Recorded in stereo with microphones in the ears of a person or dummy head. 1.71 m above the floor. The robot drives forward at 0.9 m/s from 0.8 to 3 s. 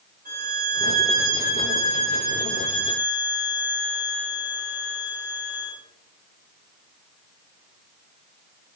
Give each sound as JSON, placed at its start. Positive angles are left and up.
{"t": 0.2, "sound": "a violin", "side_deg": -45, "distance_m": 4.5}